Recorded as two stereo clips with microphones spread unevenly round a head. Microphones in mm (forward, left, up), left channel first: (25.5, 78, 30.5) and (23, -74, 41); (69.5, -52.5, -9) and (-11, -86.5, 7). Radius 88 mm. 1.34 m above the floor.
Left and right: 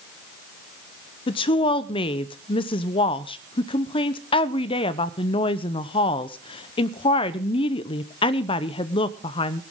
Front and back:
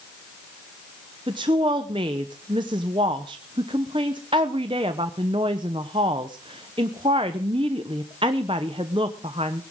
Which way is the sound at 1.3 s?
145° left.